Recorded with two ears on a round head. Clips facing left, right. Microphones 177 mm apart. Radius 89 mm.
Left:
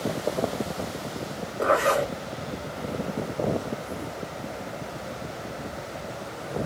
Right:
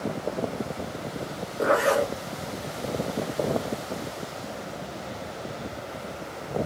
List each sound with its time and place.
1.6 s a zipper: 20° right (ahead or behind), 1.5 m